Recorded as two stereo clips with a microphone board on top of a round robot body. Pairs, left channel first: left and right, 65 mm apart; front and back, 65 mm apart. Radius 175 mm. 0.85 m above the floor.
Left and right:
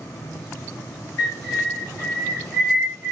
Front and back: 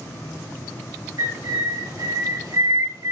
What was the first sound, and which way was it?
A bird, 175° left.